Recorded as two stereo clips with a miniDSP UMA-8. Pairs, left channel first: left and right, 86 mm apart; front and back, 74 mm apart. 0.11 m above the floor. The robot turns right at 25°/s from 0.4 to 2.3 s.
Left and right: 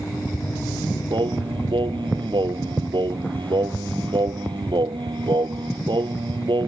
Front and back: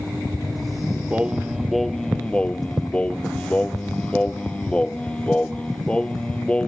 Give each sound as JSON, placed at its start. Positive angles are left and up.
{"t": 1.1, "sound": "singing", "azimuth_deg": -105}